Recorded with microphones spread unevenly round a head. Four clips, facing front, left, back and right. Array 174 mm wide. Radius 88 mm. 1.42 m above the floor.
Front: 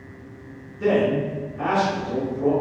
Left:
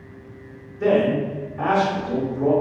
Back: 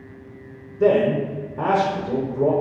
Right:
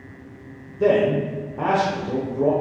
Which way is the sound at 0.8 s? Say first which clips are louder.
Right 1 dB, back 3 dB; 135° right.